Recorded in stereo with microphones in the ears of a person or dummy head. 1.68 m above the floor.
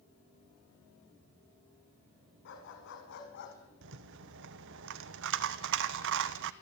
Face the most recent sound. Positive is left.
turn(degrees=-65)  # may be behind; listen again after turning